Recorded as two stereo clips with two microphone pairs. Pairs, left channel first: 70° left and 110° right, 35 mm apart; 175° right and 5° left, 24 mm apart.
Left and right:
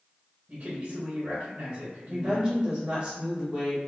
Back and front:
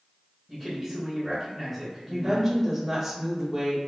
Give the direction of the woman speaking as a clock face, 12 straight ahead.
3 o'clock.